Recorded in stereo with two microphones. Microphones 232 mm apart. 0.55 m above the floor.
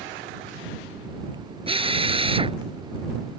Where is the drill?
25° right (ahead or behind).